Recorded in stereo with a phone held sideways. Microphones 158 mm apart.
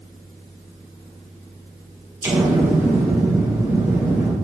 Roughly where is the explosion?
Centre.